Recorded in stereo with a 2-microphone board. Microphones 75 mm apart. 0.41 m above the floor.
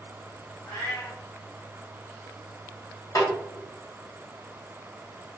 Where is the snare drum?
50° left (ahead or behind), 1.9 m.